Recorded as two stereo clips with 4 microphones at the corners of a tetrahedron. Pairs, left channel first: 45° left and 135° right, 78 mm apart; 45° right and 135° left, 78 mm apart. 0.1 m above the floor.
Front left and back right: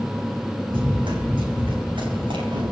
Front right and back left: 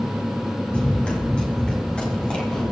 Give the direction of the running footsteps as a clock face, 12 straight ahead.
4 o'clock.